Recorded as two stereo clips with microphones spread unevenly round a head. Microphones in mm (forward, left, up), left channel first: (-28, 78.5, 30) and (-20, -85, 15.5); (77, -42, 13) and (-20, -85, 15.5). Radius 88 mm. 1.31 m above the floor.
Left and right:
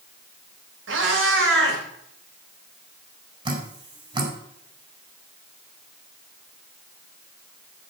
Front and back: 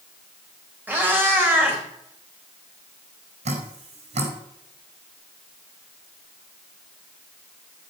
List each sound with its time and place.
0.9 s a cat meowing: 85° right, 4 m
3.5 s dripping: 150° right, 4.5 m